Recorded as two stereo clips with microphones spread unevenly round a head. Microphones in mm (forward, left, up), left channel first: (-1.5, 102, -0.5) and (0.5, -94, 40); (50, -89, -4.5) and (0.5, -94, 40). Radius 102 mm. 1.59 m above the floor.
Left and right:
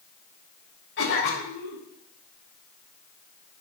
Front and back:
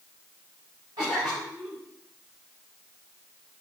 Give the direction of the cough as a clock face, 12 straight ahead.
8 o'clock.